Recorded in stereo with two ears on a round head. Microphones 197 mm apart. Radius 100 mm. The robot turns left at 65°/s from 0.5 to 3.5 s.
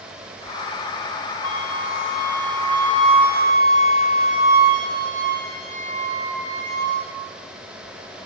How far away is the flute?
About 5.5 m.